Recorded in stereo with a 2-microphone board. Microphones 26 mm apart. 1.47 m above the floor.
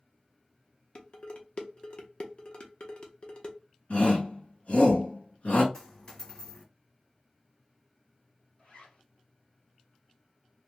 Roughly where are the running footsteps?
I don't hear running footsteps.